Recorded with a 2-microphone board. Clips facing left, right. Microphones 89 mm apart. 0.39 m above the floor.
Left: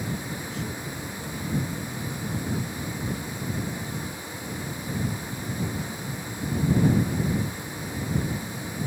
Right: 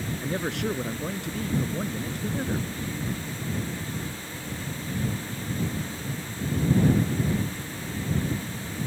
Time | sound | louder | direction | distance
0.2 | a man speaking | right 5 dB | 80° right | ?